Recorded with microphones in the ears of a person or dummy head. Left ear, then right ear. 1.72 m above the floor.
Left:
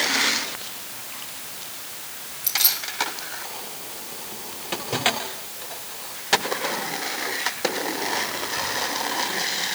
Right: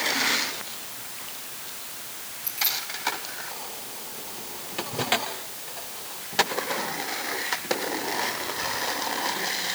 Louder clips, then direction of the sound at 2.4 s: Left 5 dB; 30° left (ahead or behind).